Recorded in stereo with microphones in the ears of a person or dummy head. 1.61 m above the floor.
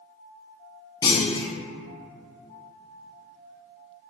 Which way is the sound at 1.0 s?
25° left (ahead or behind).